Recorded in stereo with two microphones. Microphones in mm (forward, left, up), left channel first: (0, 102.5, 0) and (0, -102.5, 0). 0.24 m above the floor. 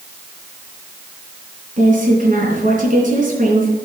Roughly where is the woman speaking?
Right.